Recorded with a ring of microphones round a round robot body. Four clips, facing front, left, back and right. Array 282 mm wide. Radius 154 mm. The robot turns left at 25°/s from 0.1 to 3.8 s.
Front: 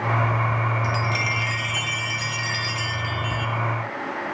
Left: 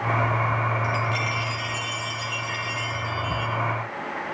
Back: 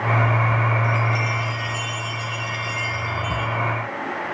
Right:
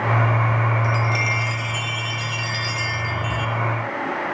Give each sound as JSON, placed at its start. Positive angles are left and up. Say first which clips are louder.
{"t": 0.8, "sound": "a chime", "louder": "right 3 dB, back 2 dB", "azimuth_deg": 0, "distance_m": 1.3}